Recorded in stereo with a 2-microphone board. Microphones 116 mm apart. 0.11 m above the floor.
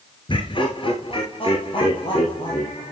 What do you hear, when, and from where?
0.3 s laughter: 45° left (ahead or behind), 1.5 m